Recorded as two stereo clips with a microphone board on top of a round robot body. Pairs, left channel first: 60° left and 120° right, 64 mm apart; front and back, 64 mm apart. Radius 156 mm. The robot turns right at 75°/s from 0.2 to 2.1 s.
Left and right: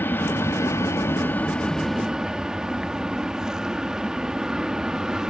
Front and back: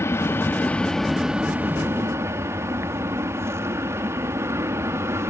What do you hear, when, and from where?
0.0 s an aircraft: 20° left; by 5.3 s 165° left